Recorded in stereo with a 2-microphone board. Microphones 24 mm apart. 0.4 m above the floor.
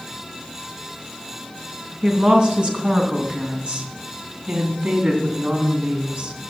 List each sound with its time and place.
2.0 s a woman speaking: 40° right (ahead or behind), 3 m; by 6.4 s 65° right (ahead or behind), 3.5 m